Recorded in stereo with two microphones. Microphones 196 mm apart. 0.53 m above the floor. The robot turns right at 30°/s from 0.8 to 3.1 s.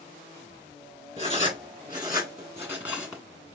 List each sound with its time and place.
1.2 s writing: 30° right (ahead or behind), 1.3 m; by 3.2 s 5° right (ahead or behind), 1.3 m